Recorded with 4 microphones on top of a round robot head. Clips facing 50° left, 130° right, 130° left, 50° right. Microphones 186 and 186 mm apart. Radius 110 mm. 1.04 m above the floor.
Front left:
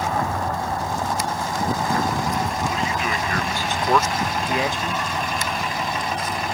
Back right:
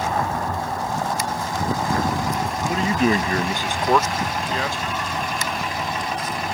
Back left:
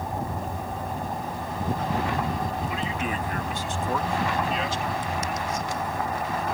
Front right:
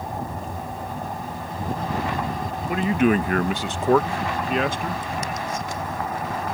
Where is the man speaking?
90° right; by 5.1 s 10° right.